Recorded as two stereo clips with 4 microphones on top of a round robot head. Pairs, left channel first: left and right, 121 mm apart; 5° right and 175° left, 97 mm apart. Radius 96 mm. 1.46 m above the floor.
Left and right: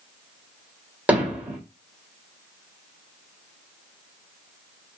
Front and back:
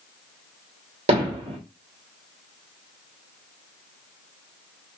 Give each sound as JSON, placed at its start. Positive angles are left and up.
{"t": 1.1, "sound": "hammering", "azimuth_deg": -170, "distance_m": 3.5}